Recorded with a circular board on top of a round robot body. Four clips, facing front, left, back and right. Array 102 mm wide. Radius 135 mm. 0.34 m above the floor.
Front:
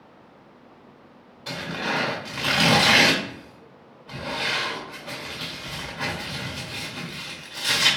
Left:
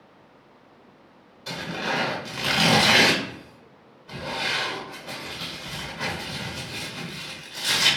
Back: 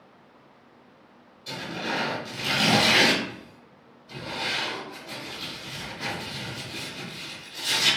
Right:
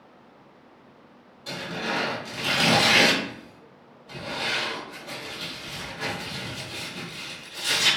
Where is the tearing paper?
10° left, 1.7 m.